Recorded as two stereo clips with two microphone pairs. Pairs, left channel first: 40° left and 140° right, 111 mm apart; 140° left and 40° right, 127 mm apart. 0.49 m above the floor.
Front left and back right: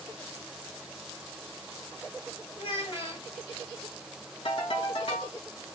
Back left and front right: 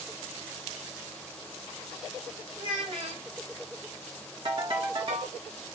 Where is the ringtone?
10° left, 1.5 m.